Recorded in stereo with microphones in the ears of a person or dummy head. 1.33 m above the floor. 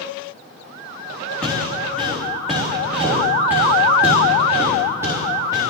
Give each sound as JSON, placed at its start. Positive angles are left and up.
{"t": 1.4, "sound": "footsteps", "side_deg": 5, "distance_m": 4.0}